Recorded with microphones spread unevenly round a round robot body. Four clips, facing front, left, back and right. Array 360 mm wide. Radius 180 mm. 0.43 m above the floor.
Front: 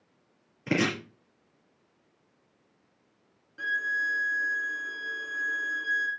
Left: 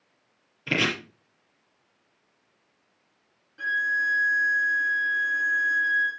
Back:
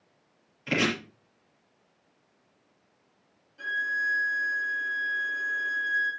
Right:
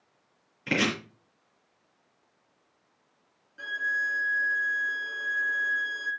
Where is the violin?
10° left, 2.5 m.